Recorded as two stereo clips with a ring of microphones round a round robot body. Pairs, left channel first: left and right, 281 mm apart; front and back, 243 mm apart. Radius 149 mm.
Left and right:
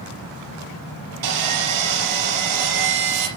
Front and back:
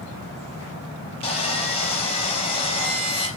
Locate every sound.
1.2 s sawing: 70° right, 4 m